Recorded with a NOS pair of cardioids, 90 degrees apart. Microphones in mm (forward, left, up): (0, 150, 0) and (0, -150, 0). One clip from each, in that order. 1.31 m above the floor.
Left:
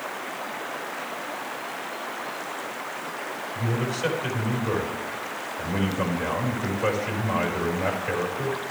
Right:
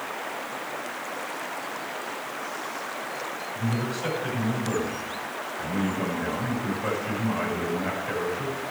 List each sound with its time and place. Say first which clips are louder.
3.5 s a man speaking: left 4 dB; 45° left, 6.5 m